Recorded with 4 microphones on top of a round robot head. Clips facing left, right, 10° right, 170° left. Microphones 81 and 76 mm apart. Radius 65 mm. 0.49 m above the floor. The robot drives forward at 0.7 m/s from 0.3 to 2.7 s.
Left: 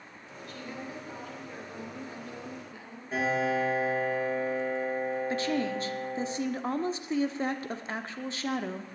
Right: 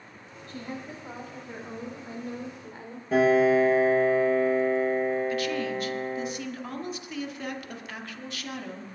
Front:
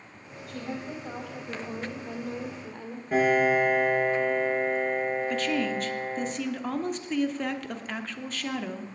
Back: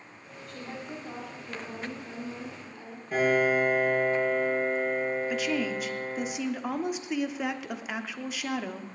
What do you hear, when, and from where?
0.5 s a woman speaking: 20° right, 3.5 m; by 3.0 s 40° right, 2 m
3.1 s a piano: 75° right, 5.5 m
5.3 s a woman speaking: 100° left, 0.9 m